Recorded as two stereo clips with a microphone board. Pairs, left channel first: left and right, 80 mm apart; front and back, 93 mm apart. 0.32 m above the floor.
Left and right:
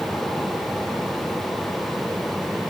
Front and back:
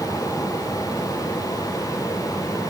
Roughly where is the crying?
I don't hear crying.